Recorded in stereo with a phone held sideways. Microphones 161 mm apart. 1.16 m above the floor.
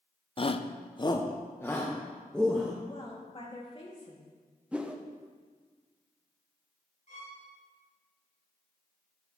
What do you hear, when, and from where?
0.4 s a shout: 35° left (ahead or behind), 0.5 m; by 2.7 s 5° left (ahead or behind), 1.6 m
2.9 s a woman speaking: 35° left (ahead or behind), 2.5 m
4.7 s a whoosh: 10° right (ahead or behind), 0.8 m
7.1 s a violin: 55° left (ahead or behind), 2.5 m